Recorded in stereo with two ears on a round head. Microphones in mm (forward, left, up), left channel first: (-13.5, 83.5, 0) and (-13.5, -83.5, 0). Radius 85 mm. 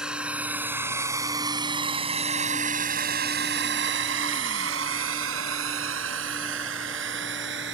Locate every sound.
0.0 s a drone: 5° right (ahead or behind); by 7.7 s 65° right (ahead or behind)